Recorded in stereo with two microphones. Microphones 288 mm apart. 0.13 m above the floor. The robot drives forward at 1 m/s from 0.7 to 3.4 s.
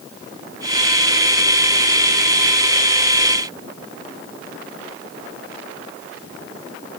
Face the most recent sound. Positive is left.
No sound to turn to.